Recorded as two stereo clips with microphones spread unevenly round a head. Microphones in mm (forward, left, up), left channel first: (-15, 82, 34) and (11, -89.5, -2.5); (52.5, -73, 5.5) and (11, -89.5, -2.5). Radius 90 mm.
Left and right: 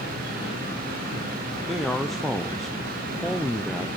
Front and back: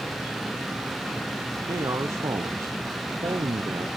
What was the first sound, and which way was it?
A man speaking, 170° right.